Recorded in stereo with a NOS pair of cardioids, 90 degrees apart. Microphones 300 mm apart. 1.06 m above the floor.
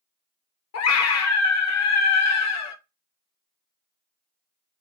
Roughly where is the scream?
Ahead left.